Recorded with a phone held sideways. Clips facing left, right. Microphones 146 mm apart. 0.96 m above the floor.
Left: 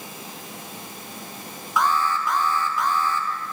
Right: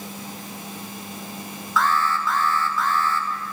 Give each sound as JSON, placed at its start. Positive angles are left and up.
{"t": 1.8, "sound": "an alarm", "side_deg": 15, "distance_m": 1.1}